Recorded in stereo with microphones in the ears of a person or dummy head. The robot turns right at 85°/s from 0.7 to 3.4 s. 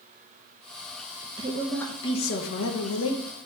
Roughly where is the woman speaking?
Ahead right.